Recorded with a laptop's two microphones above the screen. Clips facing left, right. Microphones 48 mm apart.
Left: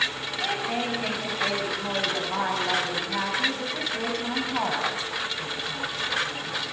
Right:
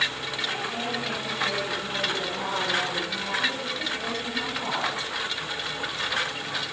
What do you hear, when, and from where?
0.4 s a woman speaking: 70° left (ahead or behind), 7.5 m